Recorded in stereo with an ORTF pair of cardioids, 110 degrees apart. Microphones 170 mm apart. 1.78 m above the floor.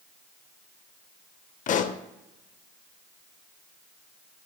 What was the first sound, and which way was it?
A pop, 45° left.